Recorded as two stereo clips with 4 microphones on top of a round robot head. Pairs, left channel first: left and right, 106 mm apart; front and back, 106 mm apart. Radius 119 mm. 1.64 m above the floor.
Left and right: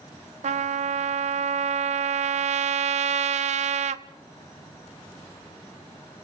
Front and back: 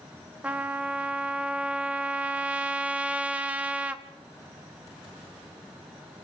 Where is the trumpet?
100° right, 0.6 m.